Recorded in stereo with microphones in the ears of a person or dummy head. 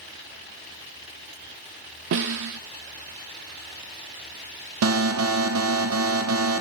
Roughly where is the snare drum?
Right.